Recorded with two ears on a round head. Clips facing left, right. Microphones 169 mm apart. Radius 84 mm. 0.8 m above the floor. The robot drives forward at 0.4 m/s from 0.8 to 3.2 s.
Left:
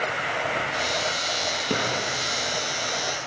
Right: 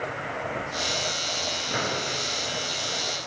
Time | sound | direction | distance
1.7 | a drawer | 80° left | 6 m